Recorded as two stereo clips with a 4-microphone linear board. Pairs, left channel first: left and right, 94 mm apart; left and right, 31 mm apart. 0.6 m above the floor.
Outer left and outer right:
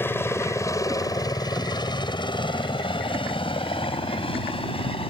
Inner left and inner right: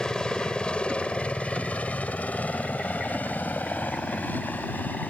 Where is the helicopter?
25° left (ahead or behind); by 5.1 s 75° left (ahead or behind).